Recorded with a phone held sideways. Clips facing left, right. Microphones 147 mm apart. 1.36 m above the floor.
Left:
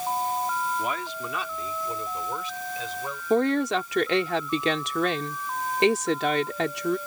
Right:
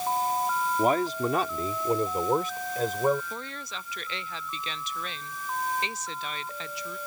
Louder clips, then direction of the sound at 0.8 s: Right 7 dB; 40° right (ahead or behind).